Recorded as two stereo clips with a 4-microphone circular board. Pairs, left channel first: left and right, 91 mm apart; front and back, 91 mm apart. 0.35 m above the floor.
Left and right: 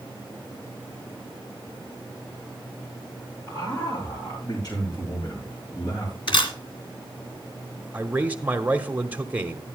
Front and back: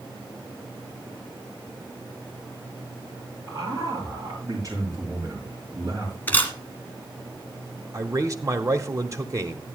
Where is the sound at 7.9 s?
155° right, 1.1 m.